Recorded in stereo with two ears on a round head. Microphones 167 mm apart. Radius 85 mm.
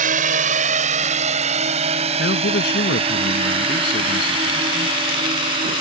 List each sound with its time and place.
0.0 s a drone: 45° right (ahead or behind); by 5.8 s 25° right (ahead or behind)
2.2 s a man speaking: 55° left (ahead or behind)